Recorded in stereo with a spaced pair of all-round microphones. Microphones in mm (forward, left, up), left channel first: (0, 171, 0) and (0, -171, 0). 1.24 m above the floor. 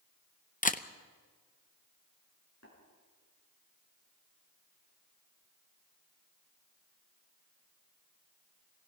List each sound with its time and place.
0.6 s a camera shutter: 25° left (ahead or behind), 0.7 m
2.6 s tapping: 50° left (ahead or behind), 8 m